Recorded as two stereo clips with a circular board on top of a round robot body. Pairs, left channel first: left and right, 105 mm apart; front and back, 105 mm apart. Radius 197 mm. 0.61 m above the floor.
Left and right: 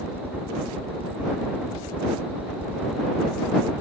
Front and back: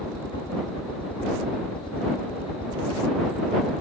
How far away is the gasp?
No gasp in this recording.